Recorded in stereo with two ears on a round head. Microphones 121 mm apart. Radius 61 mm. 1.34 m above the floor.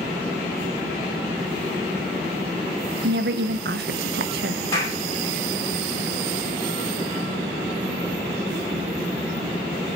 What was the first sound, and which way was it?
A woman speaking, 75° right (ahead or behind).